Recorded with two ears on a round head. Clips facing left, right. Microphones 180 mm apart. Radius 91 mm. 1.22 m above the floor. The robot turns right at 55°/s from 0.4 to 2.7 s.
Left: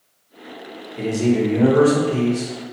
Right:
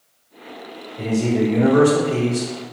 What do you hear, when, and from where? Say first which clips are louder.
1.0 s a man speaking: left 1 dB; 145° left, 1.2 m; by 2.5 s 130° right, 1.2 m